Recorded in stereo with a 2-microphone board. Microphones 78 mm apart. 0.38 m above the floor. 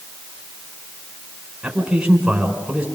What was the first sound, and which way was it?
A man speaking, 5° right (ahead or behind).